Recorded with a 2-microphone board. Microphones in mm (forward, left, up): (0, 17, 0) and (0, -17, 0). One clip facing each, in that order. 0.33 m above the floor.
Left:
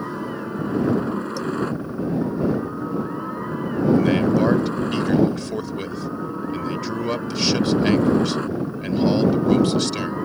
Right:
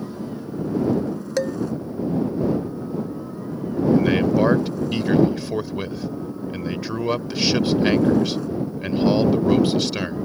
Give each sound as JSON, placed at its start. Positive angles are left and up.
{"t": 0.0, "sound": "a helicopter", "side_deg": 50}
{"t": 1.4, "sound": "dishes clattering", "side_deg": -60}
{"t": 4.0, "sound": "a man speaking", "side_deg": -10}